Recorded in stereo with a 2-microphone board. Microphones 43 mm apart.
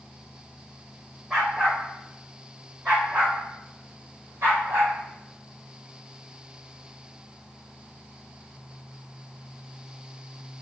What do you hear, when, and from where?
1.3 s a dog barking: 10° right (ahead or behind), 3 m; by 5.0 s 60° right (ahead or behind), 2 m